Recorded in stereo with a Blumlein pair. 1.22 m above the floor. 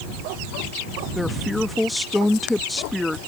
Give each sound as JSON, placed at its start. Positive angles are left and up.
{"t": 1.1, "sound": "a woman speaking", "azimuth_deg": 5}